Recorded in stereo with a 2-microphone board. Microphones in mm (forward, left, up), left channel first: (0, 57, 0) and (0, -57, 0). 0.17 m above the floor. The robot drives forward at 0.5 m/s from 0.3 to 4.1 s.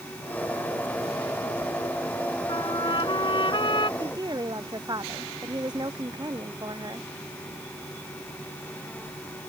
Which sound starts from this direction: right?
A woman speaking, at 4.0 s.